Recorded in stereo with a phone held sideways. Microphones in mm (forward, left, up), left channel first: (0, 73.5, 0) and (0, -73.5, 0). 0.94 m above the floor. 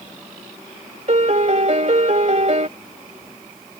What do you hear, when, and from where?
1.1 s a piano: 50° right (ahead or behind)